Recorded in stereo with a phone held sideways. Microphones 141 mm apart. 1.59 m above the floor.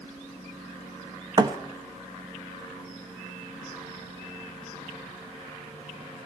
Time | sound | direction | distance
1.4 | a thud | 30° right (ahead or behind) | 0.9 m